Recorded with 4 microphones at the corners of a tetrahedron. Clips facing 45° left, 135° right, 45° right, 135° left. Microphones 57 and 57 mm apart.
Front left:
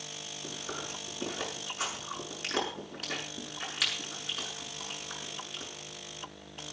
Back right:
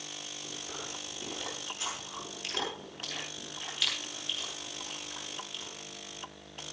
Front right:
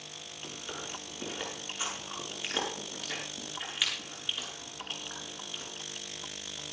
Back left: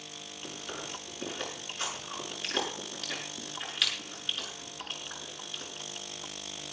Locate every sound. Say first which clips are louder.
0.4 s chewing: front left 4 dB, back left 1 dB; 35° left, 8 m